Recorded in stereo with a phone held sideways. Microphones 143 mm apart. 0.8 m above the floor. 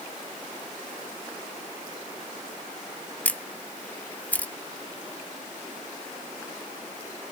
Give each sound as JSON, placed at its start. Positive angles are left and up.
{"t": 3.2, "sound": "a camera shutter", "side_deg": 10, "distance_m": 0.7}